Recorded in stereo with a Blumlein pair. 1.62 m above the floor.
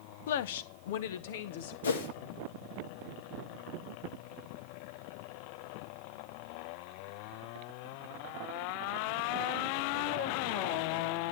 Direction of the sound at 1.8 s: 65° left.